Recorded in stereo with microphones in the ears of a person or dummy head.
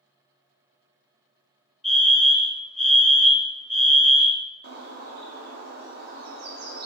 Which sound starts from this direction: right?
A bird, at 4.6 s.